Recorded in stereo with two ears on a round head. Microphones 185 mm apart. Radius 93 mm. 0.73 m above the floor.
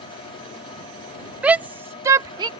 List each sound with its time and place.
1.4 s a shout: 5° right (ahead or behind); by 2.5 s 20° right (ahead or behind)